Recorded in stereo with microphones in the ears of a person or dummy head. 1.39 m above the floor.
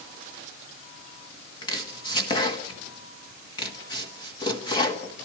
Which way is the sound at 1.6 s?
25° left (ahead or behind).